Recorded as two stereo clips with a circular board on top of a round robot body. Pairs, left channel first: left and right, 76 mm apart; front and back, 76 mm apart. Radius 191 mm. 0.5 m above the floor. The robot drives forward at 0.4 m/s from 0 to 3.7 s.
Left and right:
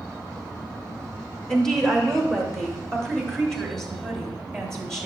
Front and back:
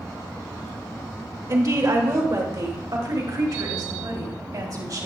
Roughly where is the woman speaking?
Behind.